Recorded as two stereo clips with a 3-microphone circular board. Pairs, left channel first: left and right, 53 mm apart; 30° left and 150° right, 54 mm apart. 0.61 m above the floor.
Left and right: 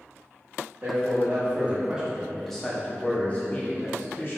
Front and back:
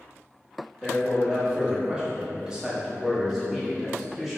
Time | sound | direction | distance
0.8 | a man speaking | 80° right | 1.0 m